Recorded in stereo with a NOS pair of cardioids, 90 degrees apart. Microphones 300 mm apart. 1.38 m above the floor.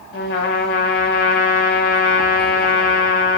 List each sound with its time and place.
0.1 s a trumpet: 40° left, 9 m